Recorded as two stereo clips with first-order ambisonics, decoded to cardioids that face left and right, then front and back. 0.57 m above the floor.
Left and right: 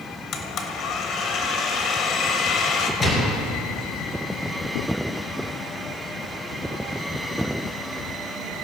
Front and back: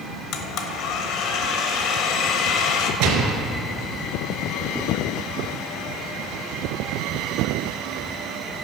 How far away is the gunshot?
About 2 m.